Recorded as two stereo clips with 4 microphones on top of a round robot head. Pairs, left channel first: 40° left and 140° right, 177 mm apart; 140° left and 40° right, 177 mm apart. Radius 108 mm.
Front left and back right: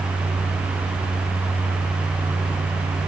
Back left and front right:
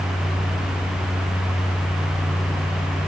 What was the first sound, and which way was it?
Only background noise.